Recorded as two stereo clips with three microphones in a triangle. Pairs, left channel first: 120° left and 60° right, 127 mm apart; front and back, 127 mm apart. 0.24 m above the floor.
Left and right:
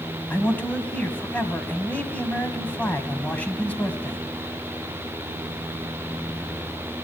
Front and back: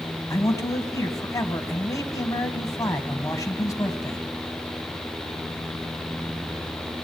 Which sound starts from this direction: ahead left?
A man speaking, at 0.3 s.